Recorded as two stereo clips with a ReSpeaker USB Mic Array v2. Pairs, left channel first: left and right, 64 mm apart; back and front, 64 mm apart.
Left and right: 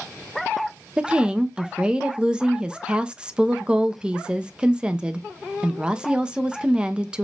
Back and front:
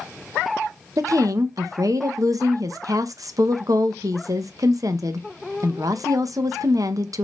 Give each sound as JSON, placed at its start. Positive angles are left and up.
{"t": 1.0, "sound": "a woman speaking", "azimuth_deg": -15, "distance_m": 0.6}